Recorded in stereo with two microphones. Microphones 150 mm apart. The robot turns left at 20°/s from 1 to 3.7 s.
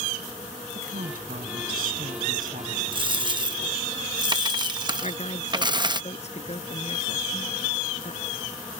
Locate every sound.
0.8 s a woman speaking: 75° right; by 2.8 s 110° right
2.9 s a dropped coin: 35° right (ahead or behind); by 6.0 s 30° right (ahead or behind)
5.0 s a woman speaking: 50° left (ahead or behind)